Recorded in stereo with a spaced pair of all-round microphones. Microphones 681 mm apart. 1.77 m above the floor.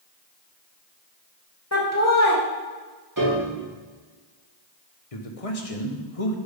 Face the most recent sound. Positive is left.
turn(degrees=60)  # may be behind; listen again after turning